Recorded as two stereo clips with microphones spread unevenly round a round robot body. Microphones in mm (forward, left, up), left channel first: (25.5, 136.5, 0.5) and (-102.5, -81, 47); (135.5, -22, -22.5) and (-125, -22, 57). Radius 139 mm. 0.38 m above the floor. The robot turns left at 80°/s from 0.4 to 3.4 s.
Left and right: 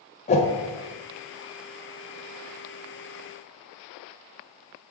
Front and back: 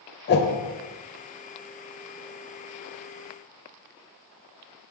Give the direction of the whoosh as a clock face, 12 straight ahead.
12 o'clock.